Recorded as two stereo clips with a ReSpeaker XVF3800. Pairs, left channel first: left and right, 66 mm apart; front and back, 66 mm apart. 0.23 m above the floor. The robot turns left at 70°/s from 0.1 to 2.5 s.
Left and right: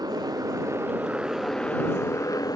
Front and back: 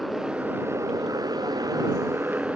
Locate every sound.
0.0 s a motorcycle: 90° right; by 2.6 s 110° left